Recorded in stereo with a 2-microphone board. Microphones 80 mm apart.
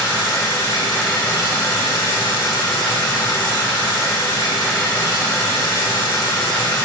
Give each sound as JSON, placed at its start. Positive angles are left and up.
{"t": 0.0, "sound": "running water", "side_deg": 80, "distance_m": 2.5}